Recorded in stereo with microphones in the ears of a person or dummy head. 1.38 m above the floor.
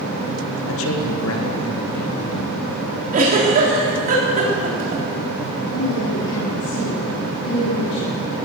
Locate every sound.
0.7 s a man speaking: 70° left (ahead or behind), 1.8 m
3.1 s a giggle: 45° right (ahead or behind), 3.5 m
5.7 s a woman speaking: 90° left, 3.5 m